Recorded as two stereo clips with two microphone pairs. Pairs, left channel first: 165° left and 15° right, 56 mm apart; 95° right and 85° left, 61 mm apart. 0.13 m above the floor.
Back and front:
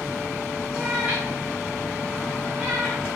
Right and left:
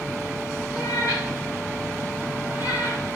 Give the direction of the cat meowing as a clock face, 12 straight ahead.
3 o'clock.